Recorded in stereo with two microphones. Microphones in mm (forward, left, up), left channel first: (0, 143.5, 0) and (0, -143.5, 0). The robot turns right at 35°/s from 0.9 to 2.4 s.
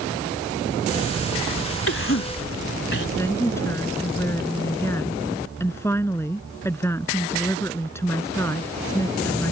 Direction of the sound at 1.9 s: 50° left (ahead or behind).